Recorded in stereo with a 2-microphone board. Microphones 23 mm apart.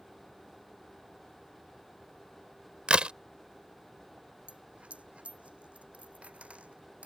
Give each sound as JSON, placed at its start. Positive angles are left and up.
{"t": 2.9, "sound": "a crack", "side_deg": -55}
{"t": 4.5, "sound": "a dropped coin", "side_deg": -75}